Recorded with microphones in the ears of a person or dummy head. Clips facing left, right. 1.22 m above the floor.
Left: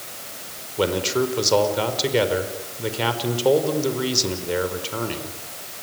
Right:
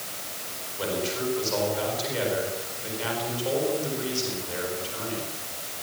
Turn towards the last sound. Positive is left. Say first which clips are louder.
# left 8 dB
turn(degrees=75)  # may be behind; listen again after turning